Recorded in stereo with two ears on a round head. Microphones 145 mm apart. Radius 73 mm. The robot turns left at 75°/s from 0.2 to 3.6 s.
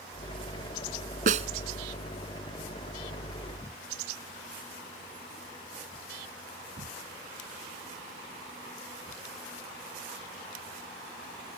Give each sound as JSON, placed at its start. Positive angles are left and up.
{"t": 1.3, "sound": "a snare drum", "side_deg": -55}